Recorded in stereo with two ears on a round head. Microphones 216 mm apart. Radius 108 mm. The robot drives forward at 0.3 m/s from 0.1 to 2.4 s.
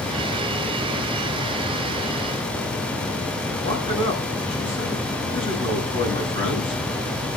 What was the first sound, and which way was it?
A man speaking, 25° left (ahead or behind).